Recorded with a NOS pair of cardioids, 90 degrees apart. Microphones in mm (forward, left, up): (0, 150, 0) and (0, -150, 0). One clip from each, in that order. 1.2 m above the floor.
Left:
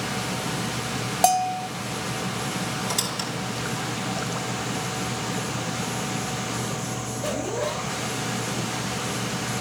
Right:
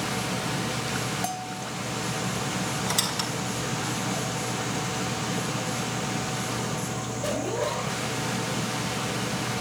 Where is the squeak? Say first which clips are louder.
Right 2 dB; 15° right, 5 m.